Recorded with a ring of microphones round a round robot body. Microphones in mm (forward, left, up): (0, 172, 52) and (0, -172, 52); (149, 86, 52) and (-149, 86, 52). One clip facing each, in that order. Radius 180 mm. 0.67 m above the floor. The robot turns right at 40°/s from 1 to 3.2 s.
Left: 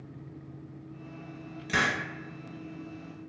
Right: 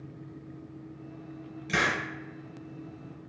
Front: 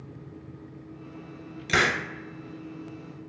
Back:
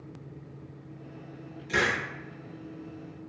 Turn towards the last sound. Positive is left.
turn(degrees=65)